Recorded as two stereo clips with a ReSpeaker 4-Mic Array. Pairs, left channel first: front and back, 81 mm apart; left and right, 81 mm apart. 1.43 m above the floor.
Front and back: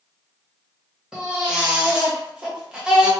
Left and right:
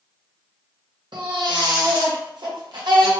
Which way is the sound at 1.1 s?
100° right.